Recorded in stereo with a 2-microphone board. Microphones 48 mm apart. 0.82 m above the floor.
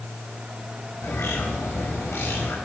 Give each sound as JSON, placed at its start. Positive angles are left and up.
{"t": 1.0, "sound": "a bird", "side_deg": 70, "distance_m": 3.5}